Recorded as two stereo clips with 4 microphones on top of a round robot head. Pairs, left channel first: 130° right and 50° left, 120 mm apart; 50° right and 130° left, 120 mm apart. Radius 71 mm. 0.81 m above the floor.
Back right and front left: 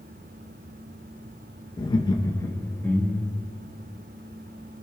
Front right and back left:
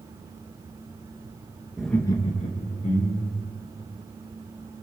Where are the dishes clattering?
No dishes clattering in this recording.